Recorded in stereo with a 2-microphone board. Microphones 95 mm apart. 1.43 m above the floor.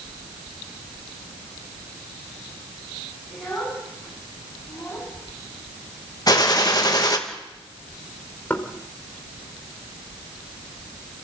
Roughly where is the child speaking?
Centre.